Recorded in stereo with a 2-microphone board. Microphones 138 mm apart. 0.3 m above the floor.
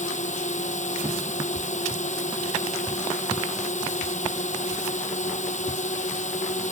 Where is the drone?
60° left (ahead or behind).